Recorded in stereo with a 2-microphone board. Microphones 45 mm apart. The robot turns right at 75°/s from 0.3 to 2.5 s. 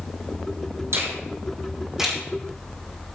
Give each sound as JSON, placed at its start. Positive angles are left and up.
{"t": 0.9, "sound": "a finger snap", "side_deg": -80, "distance_m": 4.5}